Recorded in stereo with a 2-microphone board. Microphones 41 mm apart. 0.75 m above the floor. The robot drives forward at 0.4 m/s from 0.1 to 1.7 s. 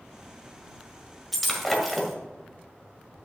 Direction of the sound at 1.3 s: Centre (ahead or behind).